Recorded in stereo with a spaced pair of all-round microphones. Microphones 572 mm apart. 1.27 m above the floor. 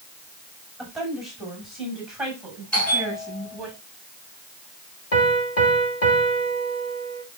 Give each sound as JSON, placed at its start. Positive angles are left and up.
{"t": 0.8, "sound": "a woman speaking", "side_deg": 0, "distance_m": 6.5}
{"t": 2.7, "sound": "a bell", "side_deg": 0, "distance_m": 7.0}
{"t": 5.1, "sound": "a piano", "side_deg": 80, "distance_m": 2.5}